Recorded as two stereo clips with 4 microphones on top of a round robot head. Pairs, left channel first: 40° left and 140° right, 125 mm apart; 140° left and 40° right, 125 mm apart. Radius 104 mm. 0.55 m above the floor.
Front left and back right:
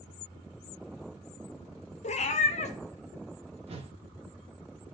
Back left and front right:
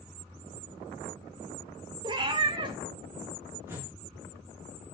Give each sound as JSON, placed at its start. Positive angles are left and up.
{"t": 2.0, "sound": "a cat meowing", "azimuth_deg": 10, "distance_m": 0.9}
{"t": 3.7, "sound": "a whoosh", "azimuth_deg": -110, "distance_m": 1.8}